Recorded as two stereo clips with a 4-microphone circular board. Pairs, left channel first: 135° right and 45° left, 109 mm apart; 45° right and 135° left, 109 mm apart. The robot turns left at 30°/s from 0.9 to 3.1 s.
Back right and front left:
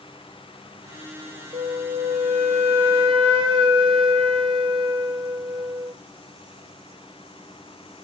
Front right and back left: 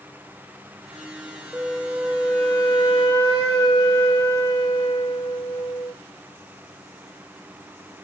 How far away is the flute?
About 0.9 m.